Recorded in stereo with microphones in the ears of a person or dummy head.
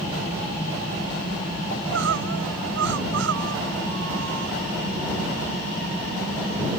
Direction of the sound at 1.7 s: 70° right (ahead or behind).